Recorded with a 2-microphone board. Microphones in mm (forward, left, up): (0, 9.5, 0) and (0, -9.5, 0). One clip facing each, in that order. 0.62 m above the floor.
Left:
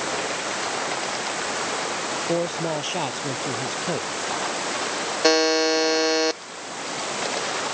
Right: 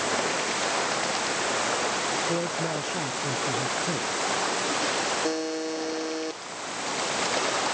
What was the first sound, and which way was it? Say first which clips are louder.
A man speaking: left 3 dB; 30° left (ahead or behind).